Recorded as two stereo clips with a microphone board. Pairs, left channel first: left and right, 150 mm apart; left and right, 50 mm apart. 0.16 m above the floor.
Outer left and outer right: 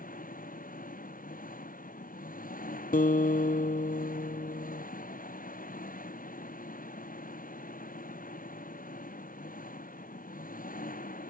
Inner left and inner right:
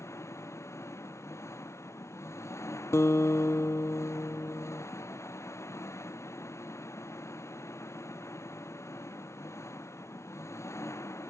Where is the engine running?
70° left (ahead or behind).